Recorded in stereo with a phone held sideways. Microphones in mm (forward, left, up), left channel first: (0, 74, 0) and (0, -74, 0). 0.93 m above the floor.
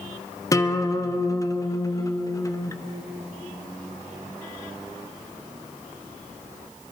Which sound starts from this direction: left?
A guitar, at 0.5 s.